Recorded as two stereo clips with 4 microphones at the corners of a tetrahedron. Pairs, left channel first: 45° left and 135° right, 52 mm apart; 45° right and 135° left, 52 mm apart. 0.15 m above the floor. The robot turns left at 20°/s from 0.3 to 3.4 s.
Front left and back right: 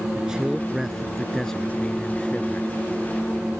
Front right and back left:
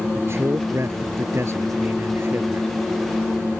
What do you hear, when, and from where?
0.1 s a man speaking: 150° left; by 2.7 s 100° left